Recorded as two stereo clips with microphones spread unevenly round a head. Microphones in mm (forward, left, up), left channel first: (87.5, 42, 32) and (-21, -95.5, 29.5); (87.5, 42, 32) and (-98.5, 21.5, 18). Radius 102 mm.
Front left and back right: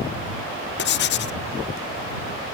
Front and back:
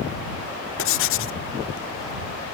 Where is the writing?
25° left.